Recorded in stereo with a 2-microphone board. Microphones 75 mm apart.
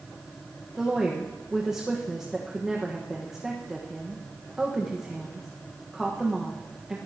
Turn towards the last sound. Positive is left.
turn(degrees=-10)  # may be behind; listen again after turning